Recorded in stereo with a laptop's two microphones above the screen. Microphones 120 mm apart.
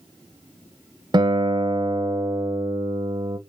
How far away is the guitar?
About 0.9 m.